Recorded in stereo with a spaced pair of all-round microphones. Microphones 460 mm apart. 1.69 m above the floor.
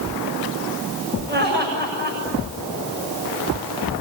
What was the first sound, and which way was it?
Laughter, 20° right (ahead or behind).